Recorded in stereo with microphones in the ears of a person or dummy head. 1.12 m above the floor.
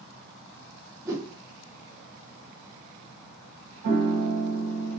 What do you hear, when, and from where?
1.1 s a whoosh: 15° right (ahead or behind), 0.5 m
3.8 s a piano: 60° right (ahead or behind), 1.3 m